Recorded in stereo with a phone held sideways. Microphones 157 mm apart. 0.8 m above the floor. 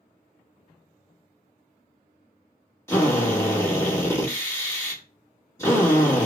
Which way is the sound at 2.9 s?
15° left (ahead or behind).